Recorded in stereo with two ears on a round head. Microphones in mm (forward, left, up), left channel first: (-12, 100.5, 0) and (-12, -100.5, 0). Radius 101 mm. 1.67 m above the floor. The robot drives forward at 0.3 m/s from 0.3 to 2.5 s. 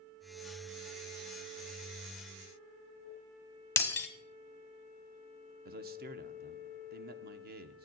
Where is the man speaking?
45° right (ahead or behind), 0.8 m.